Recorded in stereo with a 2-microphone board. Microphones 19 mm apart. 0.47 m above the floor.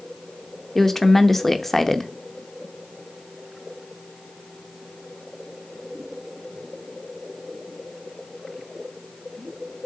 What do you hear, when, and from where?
0.8 s a woman speaking: 15° left (ahead or behind), 0.7 m